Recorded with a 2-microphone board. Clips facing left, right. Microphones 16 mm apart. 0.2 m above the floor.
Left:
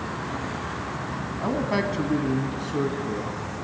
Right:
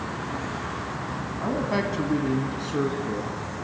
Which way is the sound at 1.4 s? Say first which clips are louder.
Left 1 dB; 20° left (ahead or behind).